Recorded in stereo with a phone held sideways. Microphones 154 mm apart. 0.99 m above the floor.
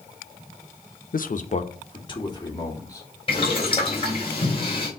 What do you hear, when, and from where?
1.1 s a man speaking: 65° left (ahead or behind), 0.6 m; by 3.1 s 20° left (ahead or behind), 2.5 m
3.3 s boiling: 35° left (ahead or behind), 3.5 m